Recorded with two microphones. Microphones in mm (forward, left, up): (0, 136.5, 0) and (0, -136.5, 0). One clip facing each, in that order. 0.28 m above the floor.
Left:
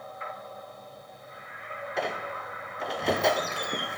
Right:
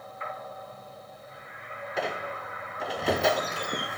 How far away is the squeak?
About 1.6 m.